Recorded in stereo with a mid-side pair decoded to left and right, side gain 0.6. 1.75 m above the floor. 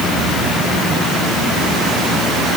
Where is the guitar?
I don't hear a guitar.